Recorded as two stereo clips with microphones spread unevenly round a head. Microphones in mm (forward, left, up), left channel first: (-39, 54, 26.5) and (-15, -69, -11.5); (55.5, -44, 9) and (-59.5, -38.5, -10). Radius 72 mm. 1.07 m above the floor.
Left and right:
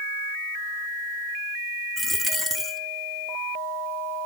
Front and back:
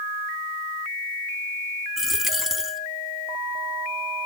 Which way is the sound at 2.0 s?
70° left.